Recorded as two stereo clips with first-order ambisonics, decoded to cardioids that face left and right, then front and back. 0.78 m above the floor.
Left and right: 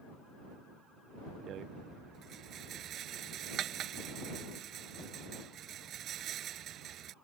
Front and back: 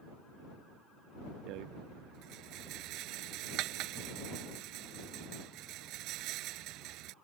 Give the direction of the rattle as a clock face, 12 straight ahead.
5 o'clock.